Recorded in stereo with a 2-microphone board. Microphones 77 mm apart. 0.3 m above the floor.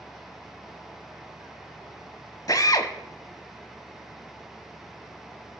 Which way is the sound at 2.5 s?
50° left (ahead or behind).